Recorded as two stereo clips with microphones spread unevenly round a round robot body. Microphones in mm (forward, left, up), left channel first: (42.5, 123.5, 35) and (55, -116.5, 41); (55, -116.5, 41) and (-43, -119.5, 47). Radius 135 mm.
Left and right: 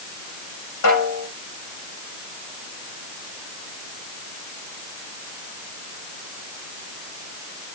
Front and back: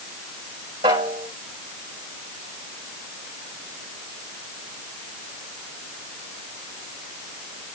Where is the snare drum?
130° left, 8 m.